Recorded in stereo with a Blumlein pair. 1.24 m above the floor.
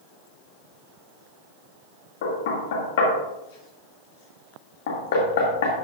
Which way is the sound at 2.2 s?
55° left.